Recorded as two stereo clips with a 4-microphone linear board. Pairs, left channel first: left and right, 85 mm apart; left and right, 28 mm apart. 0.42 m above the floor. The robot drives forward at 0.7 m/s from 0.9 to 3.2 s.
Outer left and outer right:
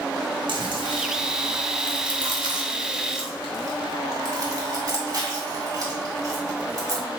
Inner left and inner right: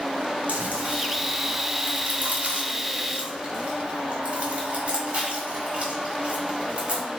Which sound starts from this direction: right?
Chewing, at 0.5 s.